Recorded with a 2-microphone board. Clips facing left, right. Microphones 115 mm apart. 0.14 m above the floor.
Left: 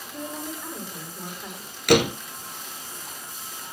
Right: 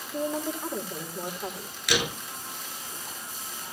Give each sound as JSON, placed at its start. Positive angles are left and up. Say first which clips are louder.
{"t": 0.1, "sound": "a woman speaking", "louder": "right 5 dB", "side_deg": -35, "distance_m": 5.5}
{"t": 1.9, "sound": "a door slam", "louder": "left 10 dB", "side_deg": 55, "distance_m": 1.2}